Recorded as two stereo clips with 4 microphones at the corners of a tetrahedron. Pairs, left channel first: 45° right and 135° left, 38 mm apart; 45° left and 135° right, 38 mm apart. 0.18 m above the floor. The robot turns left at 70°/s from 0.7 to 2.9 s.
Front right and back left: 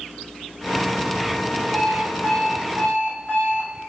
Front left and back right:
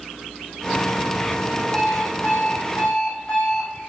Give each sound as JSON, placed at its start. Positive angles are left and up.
{"t": 1.7, "sound": "an alarm clock", "azimuth_deg": 70, "distance_m": 4.5}